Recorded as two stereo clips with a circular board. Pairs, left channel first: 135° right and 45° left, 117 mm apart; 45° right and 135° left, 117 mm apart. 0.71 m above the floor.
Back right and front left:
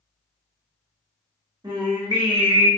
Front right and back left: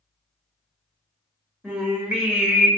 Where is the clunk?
I don't hear a clunk.